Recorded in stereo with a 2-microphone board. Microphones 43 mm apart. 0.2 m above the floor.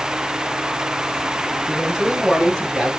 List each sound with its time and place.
1.7 s a man speaking: 5° right (ahead or behind), 3 m; by 2.9 s 30° right (ahead or behind), 4 m